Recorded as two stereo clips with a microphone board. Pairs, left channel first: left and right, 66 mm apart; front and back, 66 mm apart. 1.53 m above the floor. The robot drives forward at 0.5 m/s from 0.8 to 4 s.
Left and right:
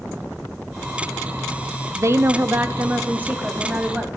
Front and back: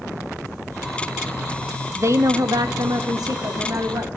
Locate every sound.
1.9 s a woman speaking: 130° right, 0.5 m; by 4.1 s 165° right, 1.4 m